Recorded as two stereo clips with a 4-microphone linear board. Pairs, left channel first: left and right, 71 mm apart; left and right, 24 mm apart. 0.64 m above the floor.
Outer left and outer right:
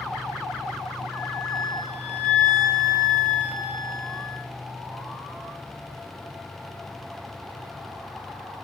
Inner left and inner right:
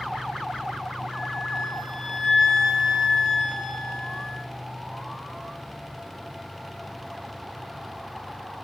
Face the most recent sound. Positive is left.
turn(degrees=15)  # may be behind; listen again after turning